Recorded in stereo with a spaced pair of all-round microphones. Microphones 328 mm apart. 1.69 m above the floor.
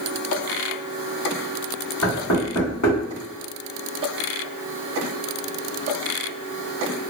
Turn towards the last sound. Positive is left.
turn(degrees=60)  # may be behind; listen again after turning